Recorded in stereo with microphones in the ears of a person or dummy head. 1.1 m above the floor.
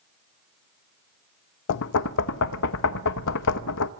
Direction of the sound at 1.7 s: 65° left (ahead or behind).